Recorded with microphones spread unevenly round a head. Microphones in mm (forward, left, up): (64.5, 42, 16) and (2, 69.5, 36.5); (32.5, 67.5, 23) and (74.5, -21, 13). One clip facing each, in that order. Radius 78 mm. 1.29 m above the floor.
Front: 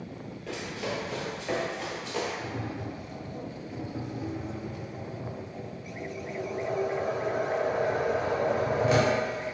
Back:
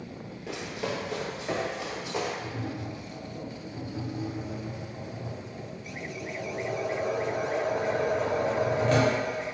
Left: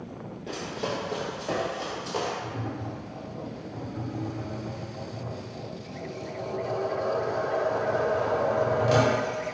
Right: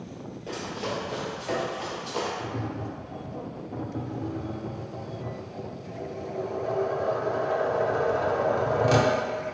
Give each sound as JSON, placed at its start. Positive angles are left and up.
{"t": 0.5, "sound": "running footsteps", "azimuth_deg": -165, "distance_m": 1.4}
{"t": 2.4, "sound": "tapping", "azimuth_deg": -85, "distance_m": 0.7}